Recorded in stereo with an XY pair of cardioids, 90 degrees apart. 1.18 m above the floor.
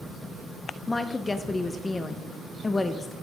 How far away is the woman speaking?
About 0.5 m.